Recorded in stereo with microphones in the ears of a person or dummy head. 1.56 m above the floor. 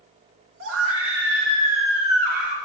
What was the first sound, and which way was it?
A scream, 75° right (ahead or behind).